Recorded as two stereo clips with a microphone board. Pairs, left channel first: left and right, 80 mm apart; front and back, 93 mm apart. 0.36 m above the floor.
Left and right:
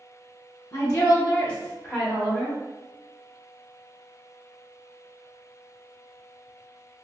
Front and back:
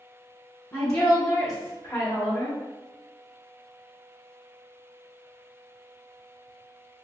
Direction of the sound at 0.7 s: 60° left.